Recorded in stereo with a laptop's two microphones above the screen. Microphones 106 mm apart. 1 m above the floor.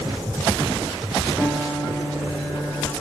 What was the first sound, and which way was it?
A piano, 5° left (ahead or behind).